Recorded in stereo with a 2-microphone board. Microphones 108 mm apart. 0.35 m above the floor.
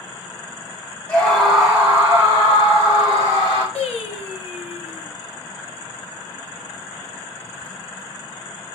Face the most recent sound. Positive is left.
turn(degrees=80)